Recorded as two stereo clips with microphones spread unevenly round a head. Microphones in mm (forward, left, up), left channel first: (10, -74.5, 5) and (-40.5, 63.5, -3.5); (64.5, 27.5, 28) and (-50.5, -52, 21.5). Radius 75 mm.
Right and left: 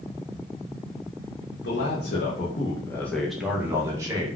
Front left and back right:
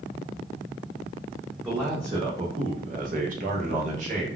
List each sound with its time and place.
1.6 s a man speaking: 70° right, 0.8 m; by 4.3 s 175° left, 1.1 m